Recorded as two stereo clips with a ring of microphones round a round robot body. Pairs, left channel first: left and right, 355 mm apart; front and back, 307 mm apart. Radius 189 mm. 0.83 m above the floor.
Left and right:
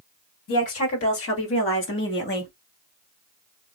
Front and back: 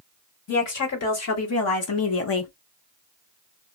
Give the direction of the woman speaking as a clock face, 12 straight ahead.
11 o'clock.